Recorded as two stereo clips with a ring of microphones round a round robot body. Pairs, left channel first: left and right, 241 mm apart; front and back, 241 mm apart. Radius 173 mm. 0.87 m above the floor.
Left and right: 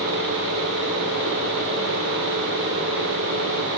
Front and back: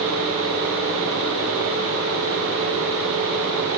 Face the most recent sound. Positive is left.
No sound to turn to.